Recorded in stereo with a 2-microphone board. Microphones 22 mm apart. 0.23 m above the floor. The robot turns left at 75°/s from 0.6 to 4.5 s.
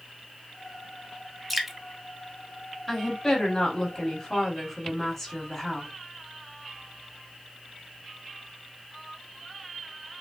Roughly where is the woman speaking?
Centre.